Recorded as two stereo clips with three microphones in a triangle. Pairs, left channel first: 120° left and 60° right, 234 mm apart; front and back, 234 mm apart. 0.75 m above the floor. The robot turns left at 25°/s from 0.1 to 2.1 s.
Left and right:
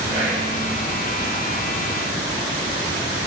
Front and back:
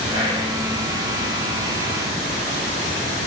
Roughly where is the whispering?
Behind right.